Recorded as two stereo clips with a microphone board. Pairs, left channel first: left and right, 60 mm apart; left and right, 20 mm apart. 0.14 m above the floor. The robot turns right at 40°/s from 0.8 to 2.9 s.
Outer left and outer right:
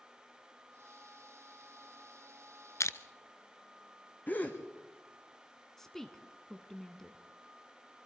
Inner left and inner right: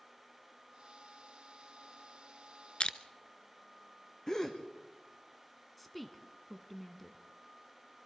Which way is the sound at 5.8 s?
5° left (ahead or behind).